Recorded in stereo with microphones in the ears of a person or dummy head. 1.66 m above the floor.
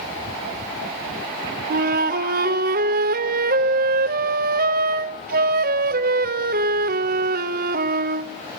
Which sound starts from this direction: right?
A flute, at 1.7 s.